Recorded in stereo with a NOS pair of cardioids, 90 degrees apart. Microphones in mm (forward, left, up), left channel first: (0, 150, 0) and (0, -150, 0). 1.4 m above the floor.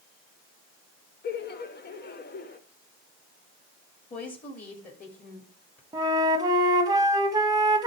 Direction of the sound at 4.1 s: 25° left.